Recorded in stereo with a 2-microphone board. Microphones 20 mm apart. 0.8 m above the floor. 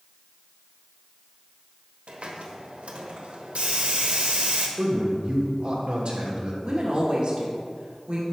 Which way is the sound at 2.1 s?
80° right.